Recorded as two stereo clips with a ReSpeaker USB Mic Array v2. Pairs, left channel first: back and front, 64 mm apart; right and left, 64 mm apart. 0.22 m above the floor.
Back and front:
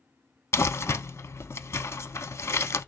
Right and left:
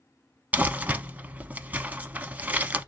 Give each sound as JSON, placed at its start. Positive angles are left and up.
{"t": 0.5, "sound": "crumpling", "azimuth_deg": 150, "distance_m": 0.5}